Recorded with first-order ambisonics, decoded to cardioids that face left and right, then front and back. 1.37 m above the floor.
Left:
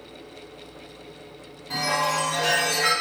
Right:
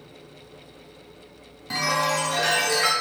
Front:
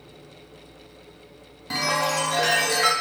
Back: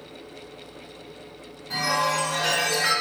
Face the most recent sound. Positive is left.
turn(degrees=-40)